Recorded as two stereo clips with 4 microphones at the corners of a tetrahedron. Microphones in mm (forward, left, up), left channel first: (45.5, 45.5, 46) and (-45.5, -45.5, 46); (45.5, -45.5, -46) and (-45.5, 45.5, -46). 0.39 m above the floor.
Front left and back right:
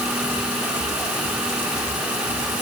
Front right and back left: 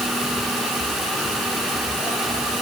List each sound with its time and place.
Only background noise.